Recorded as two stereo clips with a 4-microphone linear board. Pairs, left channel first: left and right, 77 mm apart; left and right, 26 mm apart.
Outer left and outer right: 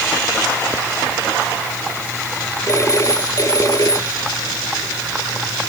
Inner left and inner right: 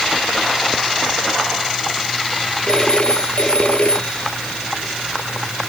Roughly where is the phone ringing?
Left.